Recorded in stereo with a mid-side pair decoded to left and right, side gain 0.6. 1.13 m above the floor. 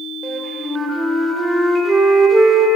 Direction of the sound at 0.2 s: 20° right.